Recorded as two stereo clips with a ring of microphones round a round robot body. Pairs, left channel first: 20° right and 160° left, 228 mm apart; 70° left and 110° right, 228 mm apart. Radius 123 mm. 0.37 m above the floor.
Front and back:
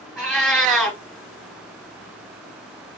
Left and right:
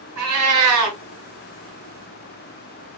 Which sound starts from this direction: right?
A cat meowing, at 0.2 s.